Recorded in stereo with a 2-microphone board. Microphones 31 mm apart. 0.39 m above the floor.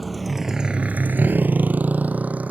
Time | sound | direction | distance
0.0 | a motorcycle | 5° left (ahead or behind) | ?